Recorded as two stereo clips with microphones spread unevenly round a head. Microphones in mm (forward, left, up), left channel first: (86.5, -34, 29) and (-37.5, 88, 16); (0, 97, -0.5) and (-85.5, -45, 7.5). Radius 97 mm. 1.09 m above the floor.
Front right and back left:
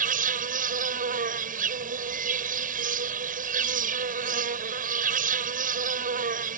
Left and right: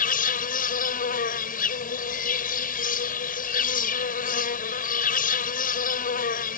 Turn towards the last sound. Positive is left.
turn(degrees=95)